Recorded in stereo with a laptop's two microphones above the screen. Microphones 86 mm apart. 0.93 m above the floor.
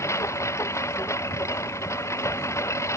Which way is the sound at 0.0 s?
35° left (ahead or behind).